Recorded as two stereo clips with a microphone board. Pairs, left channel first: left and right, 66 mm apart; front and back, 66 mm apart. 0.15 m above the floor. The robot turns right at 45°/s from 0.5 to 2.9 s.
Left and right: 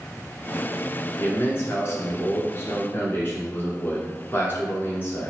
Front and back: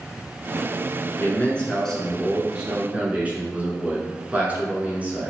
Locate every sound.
1.2 s a man speaking: 45° left, 1.7 m; by 5.3 s 125° left, 1.7 m